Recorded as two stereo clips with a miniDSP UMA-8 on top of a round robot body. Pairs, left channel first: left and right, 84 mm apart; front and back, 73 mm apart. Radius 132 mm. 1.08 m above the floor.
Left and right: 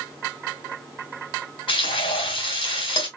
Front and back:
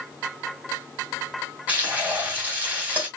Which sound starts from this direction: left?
Frying, at 1.7 s.